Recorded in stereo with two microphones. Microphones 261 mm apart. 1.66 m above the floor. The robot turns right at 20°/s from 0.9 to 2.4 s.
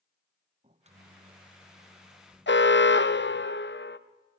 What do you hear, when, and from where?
0.6 s a microwave: 40° right, 0.9 m; by 3.5 s 10° right, 0.9 m
2.5 s an alarm: 45° left (ahead or behind), 1.1 m